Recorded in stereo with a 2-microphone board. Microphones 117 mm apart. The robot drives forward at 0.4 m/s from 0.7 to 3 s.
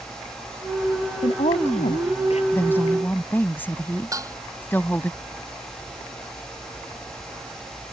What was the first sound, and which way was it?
A woman speaking, 70° left (ahead or behind).